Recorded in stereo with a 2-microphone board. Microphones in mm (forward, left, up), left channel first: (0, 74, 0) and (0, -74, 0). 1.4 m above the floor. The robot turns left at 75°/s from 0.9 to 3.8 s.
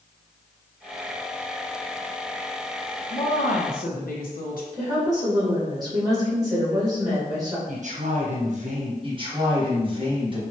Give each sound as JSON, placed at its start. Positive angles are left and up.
{"t": 3.1, "sound": "a woman speaking", "azimuth_deg": 135, "distance_m": 0.8}
{"t": 4.7, "sound": "a woman speaking", "side_deg": -25, "distance_m": 2.0}
{"t": 7.7, "sound": "a man speaking", "side_deg": -55, "distance_m": 0.9}
{"t": 9.0, "sound": "a man speaking", "side_deg": -35, "distance_m": 1.4}